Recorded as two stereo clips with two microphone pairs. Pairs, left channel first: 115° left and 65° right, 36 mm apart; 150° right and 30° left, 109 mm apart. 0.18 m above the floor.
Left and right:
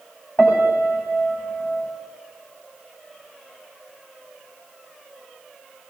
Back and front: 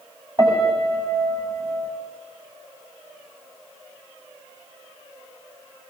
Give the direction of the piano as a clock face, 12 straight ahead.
9 o'clock.